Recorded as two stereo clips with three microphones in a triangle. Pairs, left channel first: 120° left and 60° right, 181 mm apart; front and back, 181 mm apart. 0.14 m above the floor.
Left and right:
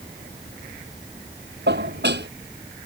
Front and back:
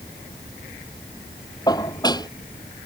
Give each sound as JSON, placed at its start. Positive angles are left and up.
{"t": 1.7, "sound": "dishes clattering", "azimuth_deg": -70}